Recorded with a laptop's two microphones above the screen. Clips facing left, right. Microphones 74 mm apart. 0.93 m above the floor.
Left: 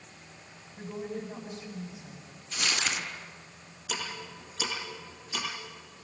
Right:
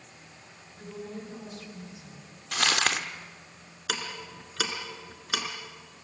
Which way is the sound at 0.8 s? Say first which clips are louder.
Left 3 dB; 20° left (ahead or behind).